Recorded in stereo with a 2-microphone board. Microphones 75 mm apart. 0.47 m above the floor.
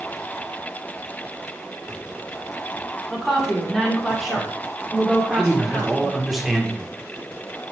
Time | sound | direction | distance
3.1 | a woman speaking | 5° left (ahead or behind) | 1.6 m
5.3 | a man speaking | 5° right (ahead or behind) | 0.9 m